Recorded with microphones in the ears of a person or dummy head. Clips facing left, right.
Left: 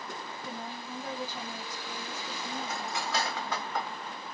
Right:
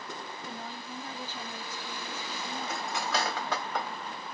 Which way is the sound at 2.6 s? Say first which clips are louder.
Right 3 dB; 55° right (ahead or behind).